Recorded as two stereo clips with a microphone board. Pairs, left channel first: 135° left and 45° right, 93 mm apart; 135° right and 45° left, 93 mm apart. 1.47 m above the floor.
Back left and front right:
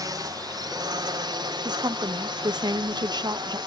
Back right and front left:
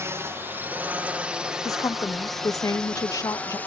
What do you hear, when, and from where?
0.0 s a drone: 10° right; by 3.7 s 65° right
1.6 s a woman speaking: 85° right